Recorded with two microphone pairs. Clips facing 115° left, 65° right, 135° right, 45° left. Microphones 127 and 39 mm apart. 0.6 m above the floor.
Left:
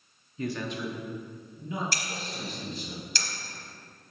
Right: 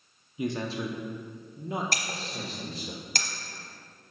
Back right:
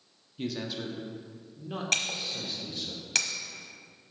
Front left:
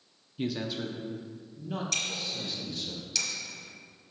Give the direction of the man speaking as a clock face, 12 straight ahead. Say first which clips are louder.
Right 2 dB, front left 2 dB; 12 o'clock.